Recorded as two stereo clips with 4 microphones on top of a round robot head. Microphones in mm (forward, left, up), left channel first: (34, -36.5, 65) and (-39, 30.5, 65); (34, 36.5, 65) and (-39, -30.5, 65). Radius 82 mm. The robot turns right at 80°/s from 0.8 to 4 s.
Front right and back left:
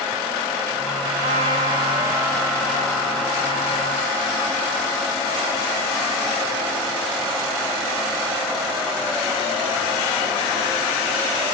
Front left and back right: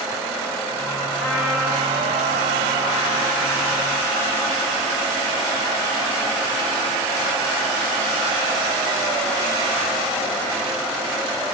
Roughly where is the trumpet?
Behind left.